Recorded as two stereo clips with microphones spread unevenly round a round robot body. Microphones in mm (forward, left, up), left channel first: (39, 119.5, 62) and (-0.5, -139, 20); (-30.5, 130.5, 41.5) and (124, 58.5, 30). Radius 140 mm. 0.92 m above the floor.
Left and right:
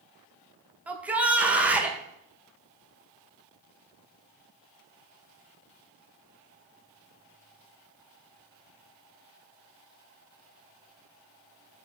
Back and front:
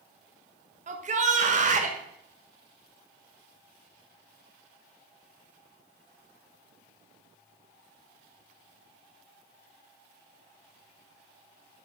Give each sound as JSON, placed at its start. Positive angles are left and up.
{"t": 0.9, "sound": "a shout", "azimuth_deg": -25, "distance_m": 1.2}